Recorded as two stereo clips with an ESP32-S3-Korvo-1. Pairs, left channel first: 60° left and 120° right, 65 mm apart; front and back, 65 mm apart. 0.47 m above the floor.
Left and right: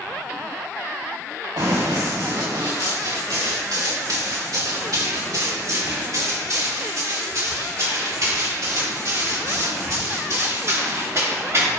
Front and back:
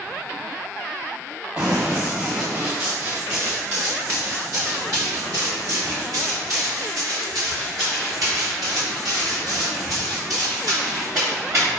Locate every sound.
1.6 s running footsteps: 130° right, 3 m; by 11.7 s 165° right, 7.5 m